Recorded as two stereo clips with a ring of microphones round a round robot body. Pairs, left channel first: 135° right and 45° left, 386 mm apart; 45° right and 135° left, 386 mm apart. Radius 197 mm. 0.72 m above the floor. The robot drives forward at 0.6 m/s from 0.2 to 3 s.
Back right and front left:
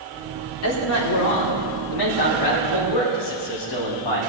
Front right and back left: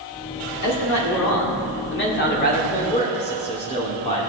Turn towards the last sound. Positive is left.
turn(degrees=-120)